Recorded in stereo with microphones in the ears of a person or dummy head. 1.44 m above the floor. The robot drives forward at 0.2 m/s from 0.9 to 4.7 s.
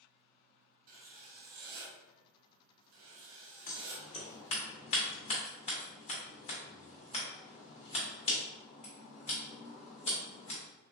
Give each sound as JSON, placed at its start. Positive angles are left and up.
{"t": 0.9, "sound": "writing", "side_deg": -45, "distance_m": 0.7}
{"t": 3.7, "sound": "scissors", "side_deg": 40, "distance_m": 0.7}